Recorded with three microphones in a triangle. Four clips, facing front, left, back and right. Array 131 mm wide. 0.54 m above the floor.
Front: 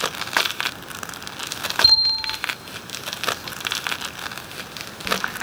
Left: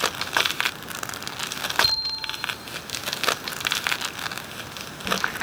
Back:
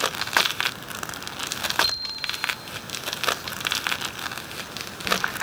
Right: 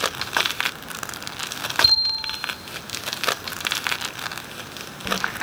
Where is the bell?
10° right, 0.9 m.